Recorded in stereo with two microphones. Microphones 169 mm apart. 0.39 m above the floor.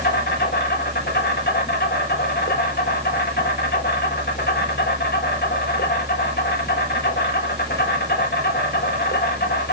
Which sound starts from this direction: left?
An insect, at 0.0 s.